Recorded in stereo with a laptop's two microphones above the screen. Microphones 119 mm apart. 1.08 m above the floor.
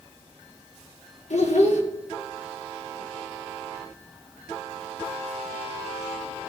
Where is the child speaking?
70° left (ahead or behind), 1.3 m.